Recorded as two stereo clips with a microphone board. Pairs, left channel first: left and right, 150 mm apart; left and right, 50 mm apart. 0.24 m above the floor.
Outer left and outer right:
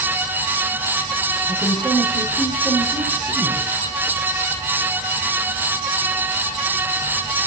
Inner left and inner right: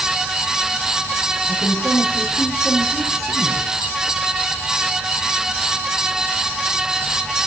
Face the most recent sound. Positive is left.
turn(degrees=-5)  # may be behind; listen again after turning